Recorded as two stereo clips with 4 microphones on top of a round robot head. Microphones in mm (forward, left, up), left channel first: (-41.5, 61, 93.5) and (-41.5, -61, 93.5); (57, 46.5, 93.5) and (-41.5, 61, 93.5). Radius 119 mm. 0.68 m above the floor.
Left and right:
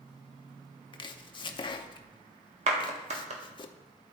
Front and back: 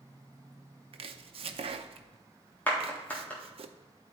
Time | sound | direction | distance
0.9 | chopping | 145° left | 0.5 m
2.7 | a clap | 80° right | 1.4 m